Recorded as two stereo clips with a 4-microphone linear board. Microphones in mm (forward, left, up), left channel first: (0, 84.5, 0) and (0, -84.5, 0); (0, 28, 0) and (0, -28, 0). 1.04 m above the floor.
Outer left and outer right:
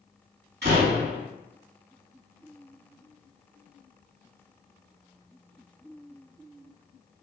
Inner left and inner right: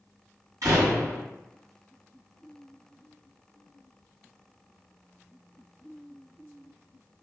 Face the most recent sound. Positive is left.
turn(degrees=-80)